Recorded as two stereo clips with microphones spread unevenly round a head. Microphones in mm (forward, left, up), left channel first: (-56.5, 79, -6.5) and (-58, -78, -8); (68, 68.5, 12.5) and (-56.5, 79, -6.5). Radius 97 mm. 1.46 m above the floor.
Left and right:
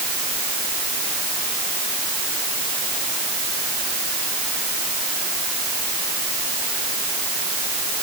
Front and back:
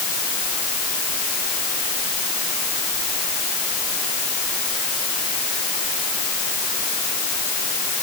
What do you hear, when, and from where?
Only background noise.